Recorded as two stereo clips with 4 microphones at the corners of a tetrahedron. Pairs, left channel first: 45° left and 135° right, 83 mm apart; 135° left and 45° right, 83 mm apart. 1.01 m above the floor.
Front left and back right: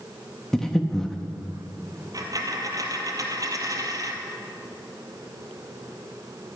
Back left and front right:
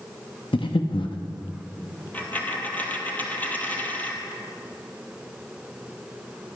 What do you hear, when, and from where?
0.5 s breathing: 130° left, 0.9 m
2.1 s a dropped coin: 160° right, 1.6 m